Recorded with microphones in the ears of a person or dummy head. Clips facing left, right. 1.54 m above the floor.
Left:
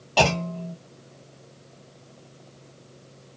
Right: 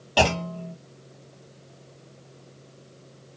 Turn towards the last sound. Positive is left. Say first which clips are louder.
# even
turn(degrees=-15)  # may be behind; listen again after turning